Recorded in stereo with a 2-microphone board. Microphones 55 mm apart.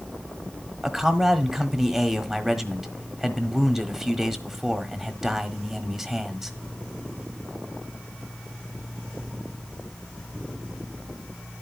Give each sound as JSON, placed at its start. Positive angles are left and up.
{"t": 0.8, "sound": "a man speaking", "side_deg": -5, "distance_m": 1.3}